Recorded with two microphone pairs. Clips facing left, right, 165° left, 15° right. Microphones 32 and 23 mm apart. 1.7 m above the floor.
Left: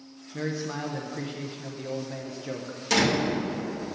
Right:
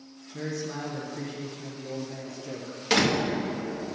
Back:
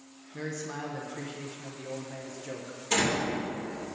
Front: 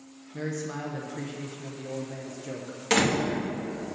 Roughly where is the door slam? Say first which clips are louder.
Even, front 3 dB; ahead right.